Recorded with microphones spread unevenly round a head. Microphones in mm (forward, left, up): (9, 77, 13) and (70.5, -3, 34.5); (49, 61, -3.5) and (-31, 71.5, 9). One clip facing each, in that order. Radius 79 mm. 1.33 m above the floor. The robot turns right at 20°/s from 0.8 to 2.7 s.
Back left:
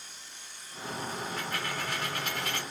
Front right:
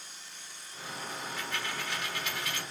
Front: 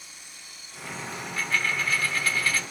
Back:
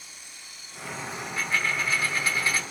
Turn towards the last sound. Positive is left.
turn(degrees=170)